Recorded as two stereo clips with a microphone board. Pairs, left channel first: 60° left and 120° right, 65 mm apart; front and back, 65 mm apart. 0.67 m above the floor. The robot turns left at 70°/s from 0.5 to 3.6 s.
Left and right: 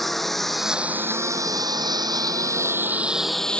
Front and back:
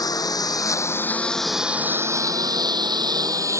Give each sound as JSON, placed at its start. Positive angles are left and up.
{"t": 0.0, "sound": "a lawn mower", "azimuth_deg": -30}